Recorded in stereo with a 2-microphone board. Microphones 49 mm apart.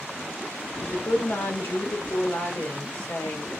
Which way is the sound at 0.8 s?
65° left (ahead or behind).